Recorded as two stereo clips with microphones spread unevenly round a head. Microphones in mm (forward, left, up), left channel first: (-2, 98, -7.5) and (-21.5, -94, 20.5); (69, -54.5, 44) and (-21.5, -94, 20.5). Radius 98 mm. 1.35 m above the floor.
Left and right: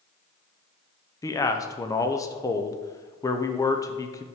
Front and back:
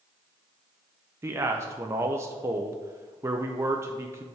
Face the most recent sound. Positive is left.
turn(degrees=150)